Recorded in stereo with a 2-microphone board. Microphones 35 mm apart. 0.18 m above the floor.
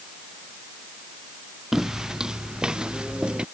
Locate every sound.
1.7 s footsteps: 10° right (ahead or behind); by 3.5 s 25° right (ahead or behind)